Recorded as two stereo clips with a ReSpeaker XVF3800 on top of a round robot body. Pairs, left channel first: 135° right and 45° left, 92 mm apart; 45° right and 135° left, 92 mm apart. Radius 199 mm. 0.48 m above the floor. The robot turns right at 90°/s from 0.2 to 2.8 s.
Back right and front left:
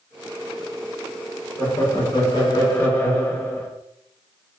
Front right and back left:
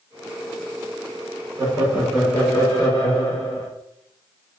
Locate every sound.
1.6 s laughter: 175° left, 1.7 m; by 3.7 s 80° right, 1.7 m